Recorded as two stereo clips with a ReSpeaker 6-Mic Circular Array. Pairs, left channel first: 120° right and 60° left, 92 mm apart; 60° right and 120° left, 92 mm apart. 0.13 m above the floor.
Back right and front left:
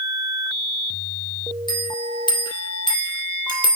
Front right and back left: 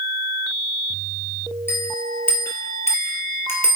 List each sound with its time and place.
1.7 s a bell: 115° right, 2.5 m